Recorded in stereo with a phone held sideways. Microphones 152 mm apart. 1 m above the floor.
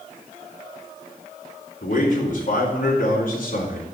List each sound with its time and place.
1.8 s a man speaking: 60° left (ahead or behind), 3.5 m